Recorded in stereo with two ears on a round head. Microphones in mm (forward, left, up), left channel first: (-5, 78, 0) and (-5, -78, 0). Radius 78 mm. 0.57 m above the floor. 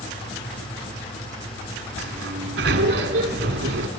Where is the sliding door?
65° right (ahead or behind), 1.3 m.